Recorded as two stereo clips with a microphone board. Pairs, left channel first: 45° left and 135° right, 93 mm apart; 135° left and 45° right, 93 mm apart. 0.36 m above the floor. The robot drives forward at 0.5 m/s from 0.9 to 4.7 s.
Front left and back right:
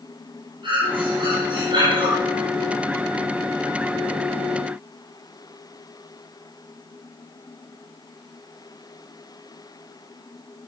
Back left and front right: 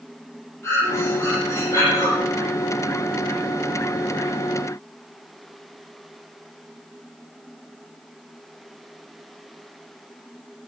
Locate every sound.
0.6 s breathing: 165° right, 8.5 m; by 2.1 s 170° right, 9 m